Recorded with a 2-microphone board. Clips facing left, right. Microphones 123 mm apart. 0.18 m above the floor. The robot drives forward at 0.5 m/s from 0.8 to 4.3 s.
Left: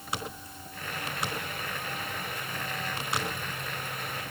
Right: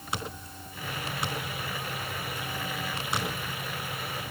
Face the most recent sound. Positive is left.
No sound to turn to.